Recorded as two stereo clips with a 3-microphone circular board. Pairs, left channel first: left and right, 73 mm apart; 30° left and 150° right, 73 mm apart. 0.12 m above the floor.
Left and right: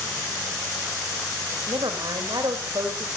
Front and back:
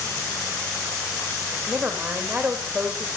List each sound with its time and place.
1.7 s a woman speaking: 75° right, 5.5 m